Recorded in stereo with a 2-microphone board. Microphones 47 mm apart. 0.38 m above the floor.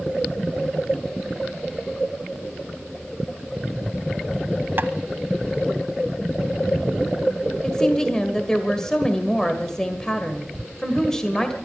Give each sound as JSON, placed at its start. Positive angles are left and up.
{"t": 4.8, "sound": "tapping", "side_deg": -50, "distance_m": 1.0}
{"t": 7.6, "sound": "a woman speaking", "side_deg": 15, "distance_m": 1.7}